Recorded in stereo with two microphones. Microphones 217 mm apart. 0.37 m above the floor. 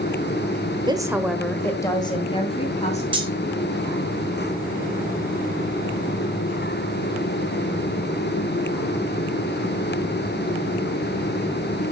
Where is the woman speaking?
20° right (ahead or behind), 1.2 m; by 3.0 s 30° left (ahead or behind), 2.5 m.